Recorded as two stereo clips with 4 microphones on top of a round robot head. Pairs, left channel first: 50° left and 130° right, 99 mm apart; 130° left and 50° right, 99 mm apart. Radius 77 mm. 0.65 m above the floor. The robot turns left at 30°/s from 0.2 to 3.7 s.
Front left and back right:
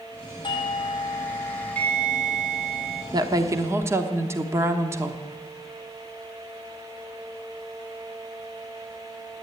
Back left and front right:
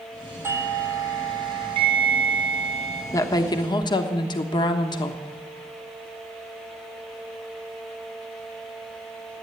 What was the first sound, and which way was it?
A doorbell, 15° left.